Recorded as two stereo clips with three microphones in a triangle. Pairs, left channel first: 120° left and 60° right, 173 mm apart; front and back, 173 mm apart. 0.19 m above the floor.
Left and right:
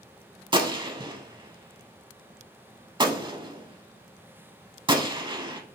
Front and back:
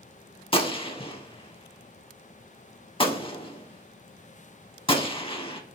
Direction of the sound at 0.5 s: 25° right.